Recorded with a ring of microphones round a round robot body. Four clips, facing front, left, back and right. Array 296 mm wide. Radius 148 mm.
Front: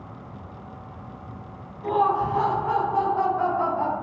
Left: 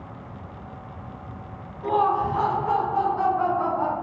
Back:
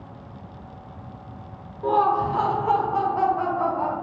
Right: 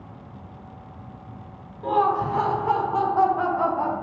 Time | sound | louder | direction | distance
1.8 | laughter | even, back 2 dB | 160° right | 1.3 m